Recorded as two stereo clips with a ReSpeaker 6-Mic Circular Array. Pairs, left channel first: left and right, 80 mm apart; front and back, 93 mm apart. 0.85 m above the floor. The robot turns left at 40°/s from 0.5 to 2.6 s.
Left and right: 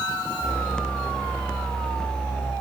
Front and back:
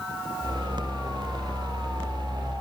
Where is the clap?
I don't hear a clap.